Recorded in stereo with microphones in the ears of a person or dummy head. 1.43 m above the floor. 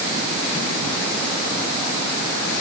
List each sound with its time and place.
Only background noise.